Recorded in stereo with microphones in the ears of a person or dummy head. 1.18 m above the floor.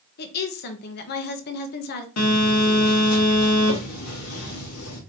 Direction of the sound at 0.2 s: 55° left (ahead or behind).